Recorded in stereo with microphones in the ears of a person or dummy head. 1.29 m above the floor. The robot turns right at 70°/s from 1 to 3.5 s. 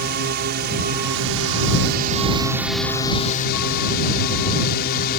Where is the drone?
125° right; by 5.2 s 50° left.